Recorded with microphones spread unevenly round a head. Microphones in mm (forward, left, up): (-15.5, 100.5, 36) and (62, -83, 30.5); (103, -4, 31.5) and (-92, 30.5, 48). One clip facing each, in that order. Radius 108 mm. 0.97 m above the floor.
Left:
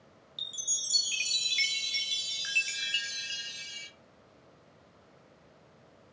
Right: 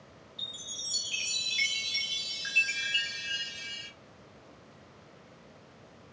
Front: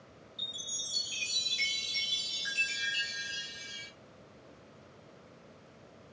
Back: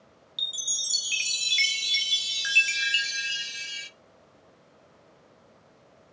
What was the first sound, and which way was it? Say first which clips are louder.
A chime: right 5 dB, front 2 dB; 165° left.